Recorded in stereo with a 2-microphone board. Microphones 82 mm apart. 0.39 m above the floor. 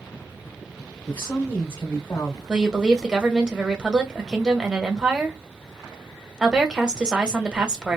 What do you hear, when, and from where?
1.1 s a woman speaking: 50° left (ahead or behind), 1.6 m
2.5 s a woman speaking: 10° right (ahead or behind), 1.0 m